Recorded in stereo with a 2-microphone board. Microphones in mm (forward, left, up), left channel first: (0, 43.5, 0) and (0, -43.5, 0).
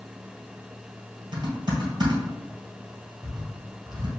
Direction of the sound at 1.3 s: 50° right (ahead or behind).